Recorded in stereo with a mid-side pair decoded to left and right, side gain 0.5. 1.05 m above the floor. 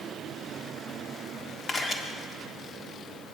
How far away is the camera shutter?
About 1.8 m.